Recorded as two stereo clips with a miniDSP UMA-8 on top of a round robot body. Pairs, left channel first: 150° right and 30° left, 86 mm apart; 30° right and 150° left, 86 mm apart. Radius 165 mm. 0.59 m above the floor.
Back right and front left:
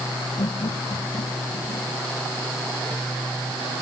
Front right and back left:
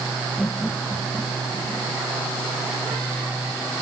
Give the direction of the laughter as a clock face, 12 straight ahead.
4 o'clock.